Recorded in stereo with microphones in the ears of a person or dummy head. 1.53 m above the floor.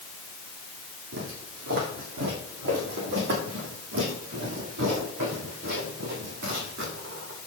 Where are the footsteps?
65° right (ahead or behind), 3.5 m; by 7.4 s 70° right (ahead or behind), 7.5 m.